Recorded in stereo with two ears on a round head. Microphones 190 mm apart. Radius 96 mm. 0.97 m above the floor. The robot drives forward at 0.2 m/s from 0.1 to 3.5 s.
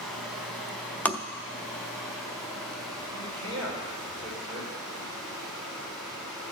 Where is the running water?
Centre (ahead or behind), 3 m.